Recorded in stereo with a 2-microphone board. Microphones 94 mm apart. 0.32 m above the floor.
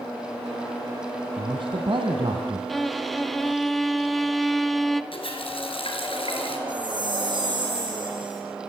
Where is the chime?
55° right (ahead or behind), 5 m.